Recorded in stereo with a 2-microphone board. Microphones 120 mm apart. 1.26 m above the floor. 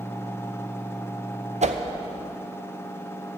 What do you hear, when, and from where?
1.6 s a whoosh: 75° right (ahead or behind), 0.6 m